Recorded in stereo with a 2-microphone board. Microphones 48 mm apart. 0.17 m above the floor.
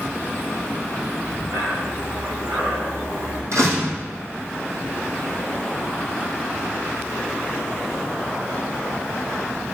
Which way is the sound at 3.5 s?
75° right (ahead or behind).